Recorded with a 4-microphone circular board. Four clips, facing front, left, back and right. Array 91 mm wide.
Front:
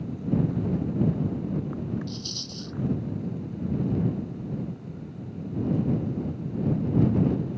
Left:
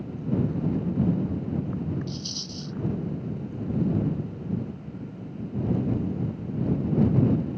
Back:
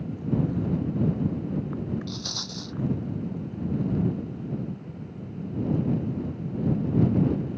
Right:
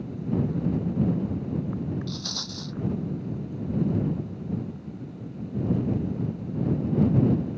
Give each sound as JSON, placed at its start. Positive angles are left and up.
{"t": 2.1, "sound": "a rattle", "azimuth_deg": -135}